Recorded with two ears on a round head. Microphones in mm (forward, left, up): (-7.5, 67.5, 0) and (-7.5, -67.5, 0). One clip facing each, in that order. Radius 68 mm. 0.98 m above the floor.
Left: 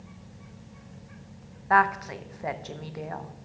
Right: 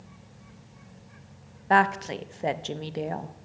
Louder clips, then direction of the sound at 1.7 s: Right 1 dB; 30° right (ahead or behind).